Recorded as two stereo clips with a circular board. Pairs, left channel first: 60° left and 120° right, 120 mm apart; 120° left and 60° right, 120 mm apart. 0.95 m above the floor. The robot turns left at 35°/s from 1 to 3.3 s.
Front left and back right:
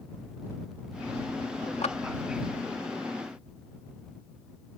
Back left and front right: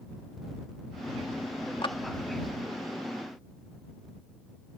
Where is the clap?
80° left; by 2.0 s 75° left.